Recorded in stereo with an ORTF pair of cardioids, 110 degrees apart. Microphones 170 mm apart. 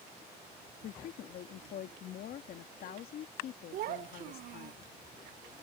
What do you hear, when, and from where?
0.8 s a woman speaking: 65° left
3.7 s a child speaking: 60° right